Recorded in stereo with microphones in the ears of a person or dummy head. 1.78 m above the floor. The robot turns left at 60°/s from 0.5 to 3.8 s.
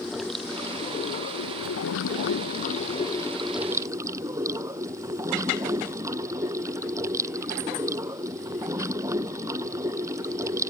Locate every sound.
0.0 s running water: straight behind; by 10.7 s 20° right